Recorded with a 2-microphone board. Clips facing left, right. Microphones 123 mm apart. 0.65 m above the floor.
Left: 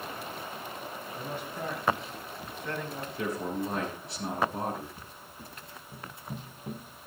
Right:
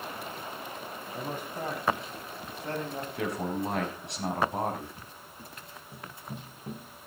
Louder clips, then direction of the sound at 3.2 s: Even; 75° right (ahead or behind).